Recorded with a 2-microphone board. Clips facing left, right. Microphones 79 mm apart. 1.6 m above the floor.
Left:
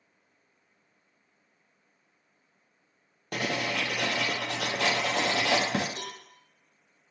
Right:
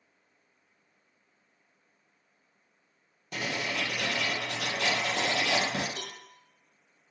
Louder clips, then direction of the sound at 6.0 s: Left 2 dB; 35° left (ahead or behind).